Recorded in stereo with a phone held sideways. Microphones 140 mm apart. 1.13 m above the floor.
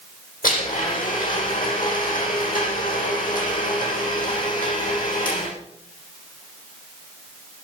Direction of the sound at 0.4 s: 85° left.